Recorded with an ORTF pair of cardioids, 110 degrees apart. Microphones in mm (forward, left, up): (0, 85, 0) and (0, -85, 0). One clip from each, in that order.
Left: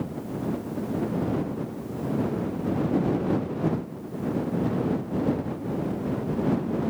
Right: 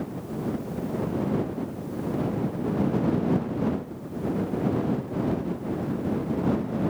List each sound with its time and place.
Only background noise.